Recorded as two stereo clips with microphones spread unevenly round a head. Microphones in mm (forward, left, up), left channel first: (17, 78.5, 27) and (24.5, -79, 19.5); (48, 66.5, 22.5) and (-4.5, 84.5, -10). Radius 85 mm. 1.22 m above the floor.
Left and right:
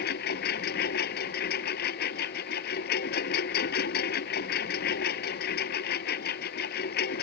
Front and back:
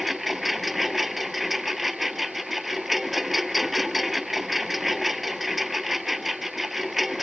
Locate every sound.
0.0 s a lawn mower: 70° left